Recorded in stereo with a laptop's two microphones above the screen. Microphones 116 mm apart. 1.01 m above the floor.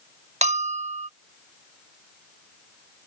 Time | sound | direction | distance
0.4 | a bell | 75° right (ahead or behind) | ?